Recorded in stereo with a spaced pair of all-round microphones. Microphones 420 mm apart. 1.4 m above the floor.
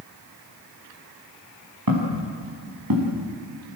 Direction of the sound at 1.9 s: 55° right (ahead or behind).